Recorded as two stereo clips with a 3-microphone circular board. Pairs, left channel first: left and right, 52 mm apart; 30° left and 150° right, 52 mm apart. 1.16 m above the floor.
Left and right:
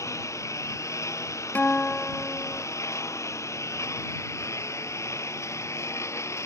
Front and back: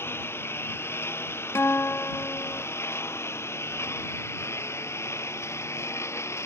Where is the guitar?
40° left.